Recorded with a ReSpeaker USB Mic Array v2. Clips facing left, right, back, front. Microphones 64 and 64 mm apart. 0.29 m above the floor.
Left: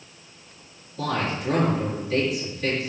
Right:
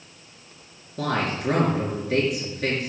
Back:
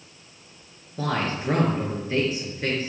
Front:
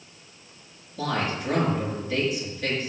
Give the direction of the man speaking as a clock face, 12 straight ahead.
4 o'clock.